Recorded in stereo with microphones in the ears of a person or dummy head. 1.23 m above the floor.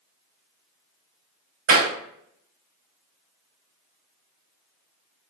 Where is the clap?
75° right (ahead or behind), 1.8 m.